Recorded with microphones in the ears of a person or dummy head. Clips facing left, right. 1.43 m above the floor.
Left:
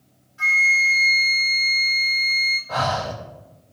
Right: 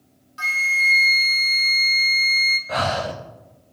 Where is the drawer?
I don't hear a drawer.